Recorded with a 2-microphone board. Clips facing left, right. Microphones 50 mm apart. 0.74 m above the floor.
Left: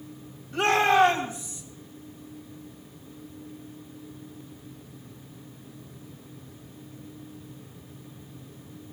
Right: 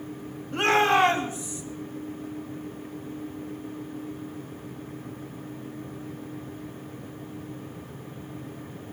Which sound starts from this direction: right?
A shout, at 0.5 s.